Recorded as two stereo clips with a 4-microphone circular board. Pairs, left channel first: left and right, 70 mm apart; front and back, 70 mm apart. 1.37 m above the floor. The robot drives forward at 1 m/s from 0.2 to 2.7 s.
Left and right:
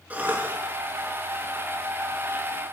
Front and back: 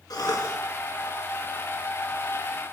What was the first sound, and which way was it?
A cough, 20° right.